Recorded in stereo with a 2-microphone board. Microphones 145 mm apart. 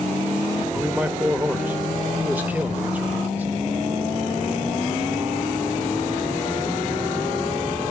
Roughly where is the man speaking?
Centre.